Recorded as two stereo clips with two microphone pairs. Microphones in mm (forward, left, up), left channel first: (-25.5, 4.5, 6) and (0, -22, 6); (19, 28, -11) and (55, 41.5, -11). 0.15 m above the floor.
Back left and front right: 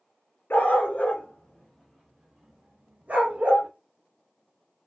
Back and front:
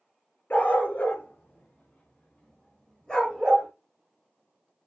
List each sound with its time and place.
0.5 s a dog barking: 160° left, 0.9 m; by 3.7 s 80° right, 1.2 m